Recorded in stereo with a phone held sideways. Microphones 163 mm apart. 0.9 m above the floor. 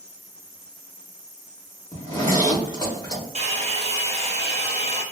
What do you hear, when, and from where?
1.9 s a zipper: 20° left (ahead or behind), 1.0 m
3.4 s a hair dryer: 40° right (ahead or behind), 0.6 m